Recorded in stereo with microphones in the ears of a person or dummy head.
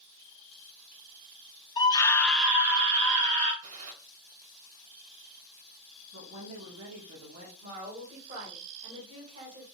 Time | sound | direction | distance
1.8 | a scream | 20° left (ahead or behind) | 0.7 m
3.6 | a gunshot | 45° right (ahead or behind) | 1.4 m
6.1 | a woman speaking | 80° right | 1.2 m
7.6 | a woman speaking | 40° right (ahead or behind) | 1.6 m